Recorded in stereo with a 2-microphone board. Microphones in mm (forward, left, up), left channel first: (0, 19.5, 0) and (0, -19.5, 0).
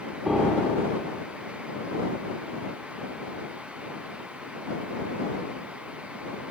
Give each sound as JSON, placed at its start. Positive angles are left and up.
{"t": 0.3, "sound": "a piano", "side_deg": 10}